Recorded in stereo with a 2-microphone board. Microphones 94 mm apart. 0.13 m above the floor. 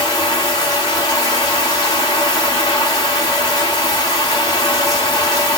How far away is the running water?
About 1.6 m.